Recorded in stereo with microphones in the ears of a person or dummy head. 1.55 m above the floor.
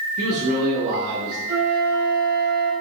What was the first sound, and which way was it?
A man speaking, 45° right (ahead or behind).